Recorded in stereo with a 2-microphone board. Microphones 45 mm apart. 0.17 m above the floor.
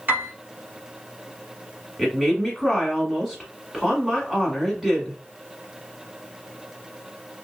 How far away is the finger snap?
No finger snap in this recording.